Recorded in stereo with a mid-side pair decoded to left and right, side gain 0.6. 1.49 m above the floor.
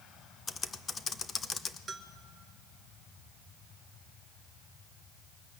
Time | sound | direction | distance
0.5 | typing on a keyboard | 35° left | 1.1 m
1.9 | a bell | 30° right | 1.6 m